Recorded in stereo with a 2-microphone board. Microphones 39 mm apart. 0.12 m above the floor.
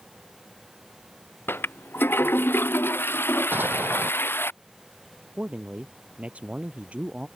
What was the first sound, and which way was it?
A toilet flushing, 75° left (ahead or behind).